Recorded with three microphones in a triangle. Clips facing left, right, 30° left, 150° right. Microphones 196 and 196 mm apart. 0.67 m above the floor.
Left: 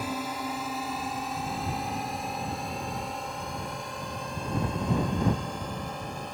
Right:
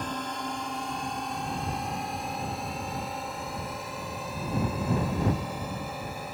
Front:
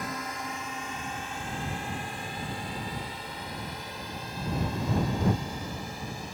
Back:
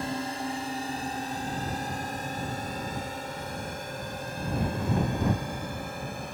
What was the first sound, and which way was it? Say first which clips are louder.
A drone: left 2 dB, back 5 dB; 170° left.